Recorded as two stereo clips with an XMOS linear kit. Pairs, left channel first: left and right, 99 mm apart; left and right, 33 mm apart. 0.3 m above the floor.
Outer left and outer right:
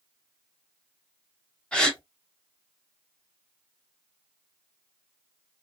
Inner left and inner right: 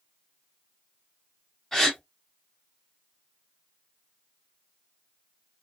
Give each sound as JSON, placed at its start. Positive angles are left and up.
{"t": 1.7, "sound": "a gasp", "side_deg": 10, "distance_m": 1.0}